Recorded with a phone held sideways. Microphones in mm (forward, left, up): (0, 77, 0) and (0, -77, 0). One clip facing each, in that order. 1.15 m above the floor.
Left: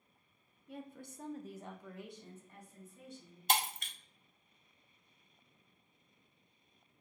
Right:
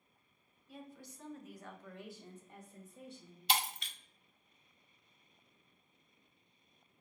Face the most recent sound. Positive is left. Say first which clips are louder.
# left 2 dB
turn(degrees=50)  # may be behind; listen again after turning